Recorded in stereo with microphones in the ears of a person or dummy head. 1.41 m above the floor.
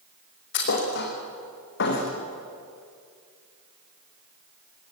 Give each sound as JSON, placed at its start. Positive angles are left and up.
{"t": 0.5, "sound": "a thud", "side_deg": 65, "distance_m": 6.0}